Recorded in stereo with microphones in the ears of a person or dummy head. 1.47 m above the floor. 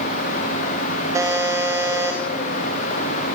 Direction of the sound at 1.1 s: 10° right (ahead or behind).